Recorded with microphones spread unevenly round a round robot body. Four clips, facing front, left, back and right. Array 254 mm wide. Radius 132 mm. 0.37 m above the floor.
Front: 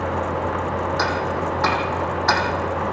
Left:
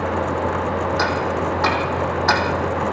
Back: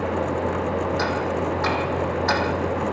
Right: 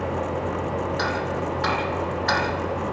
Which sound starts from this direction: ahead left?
Ticking, at 1.0 s.